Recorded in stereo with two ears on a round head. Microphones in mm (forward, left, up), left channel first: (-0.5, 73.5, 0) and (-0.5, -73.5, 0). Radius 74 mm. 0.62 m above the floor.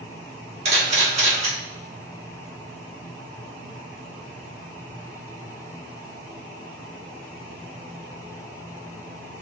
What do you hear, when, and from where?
0.7 s a camera shutter: 45° right (ahead or behind), 1.6 m